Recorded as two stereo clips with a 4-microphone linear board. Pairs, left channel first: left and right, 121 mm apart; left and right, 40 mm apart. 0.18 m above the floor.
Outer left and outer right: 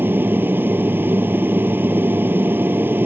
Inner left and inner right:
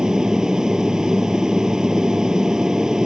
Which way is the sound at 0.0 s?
15° right (ahead or behind).